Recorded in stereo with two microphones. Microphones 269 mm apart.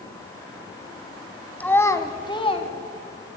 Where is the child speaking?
5° left (ahead or behind), 1.4 m; by 2.7 s 25° left (ahead or behind), 1.9 m.